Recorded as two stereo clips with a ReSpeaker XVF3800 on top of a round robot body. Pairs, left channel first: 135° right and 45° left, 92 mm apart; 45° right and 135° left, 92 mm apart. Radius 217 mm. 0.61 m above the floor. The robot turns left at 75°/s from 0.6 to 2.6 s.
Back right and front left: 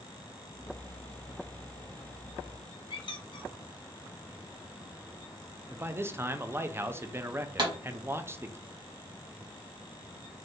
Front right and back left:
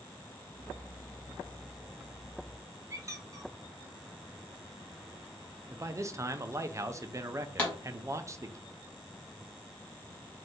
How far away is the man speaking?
About 0.6 m.